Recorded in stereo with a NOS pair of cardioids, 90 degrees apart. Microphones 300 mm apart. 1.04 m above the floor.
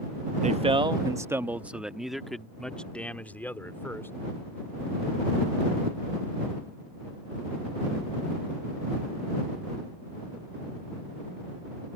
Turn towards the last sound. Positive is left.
turn(degrees=10)